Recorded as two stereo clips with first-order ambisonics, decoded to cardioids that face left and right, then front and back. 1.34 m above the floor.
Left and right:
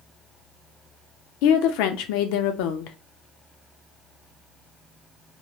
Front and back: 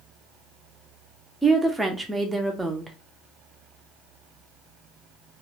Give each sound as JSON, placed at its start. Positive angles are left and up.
{"t": 1.4, "sound": "a woman speaking", "azimuth_deg": 95, "distance_m": 0.5}